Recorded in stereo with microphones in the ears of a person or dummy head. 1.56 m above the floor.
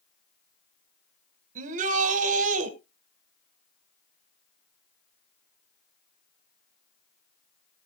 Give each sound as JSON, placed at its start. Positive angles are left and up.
{"t": 1.6, "sound": "a shout", "side_deg": -45, "distance_m": 1.8}